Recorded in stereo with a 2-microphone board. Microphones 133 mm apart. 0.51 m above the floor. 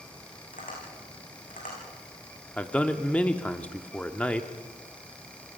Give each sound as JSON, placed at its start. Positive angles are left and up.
{"t": 0.5, "sound": "tapping", "side_deg": 85, "distance_m": 9.0}
{"t": 2.6, "sound": "a man speaking", "side_deg": 10, "distance_m": 1.1}